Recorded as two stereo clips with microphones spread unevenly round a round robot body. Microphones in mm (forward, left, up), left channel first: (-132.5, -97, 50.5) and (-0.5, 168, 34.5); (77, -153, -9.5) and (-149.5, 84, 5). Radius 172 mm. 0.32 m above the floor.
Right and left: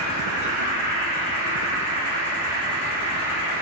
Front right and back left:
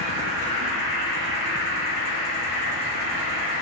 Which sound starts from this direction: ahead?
An insect, at 0.0 s.